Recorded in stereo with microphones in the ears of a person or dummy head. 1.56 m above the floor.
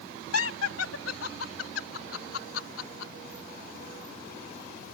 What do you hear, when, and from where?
0.3 s laughter: 80° left; by 3.1 s 75° left (ahead or behind)